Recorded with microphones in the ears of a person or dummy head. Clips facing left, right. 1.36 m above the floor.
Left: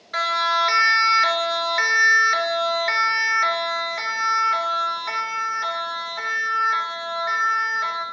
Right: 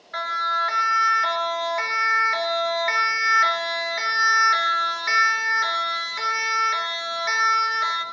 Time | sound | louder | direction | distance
0.1 | a siren | left 5 dB | 45° left (ahead or behind) | 3 m